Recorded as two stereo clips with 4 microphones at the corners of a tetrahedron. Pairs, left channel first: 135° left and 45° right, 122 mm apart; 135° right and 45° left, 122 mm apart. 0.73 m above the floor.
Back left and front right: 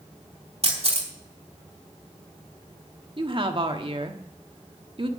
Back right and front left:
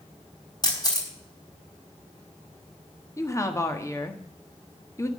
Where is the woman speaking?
75° right, 1.4 m.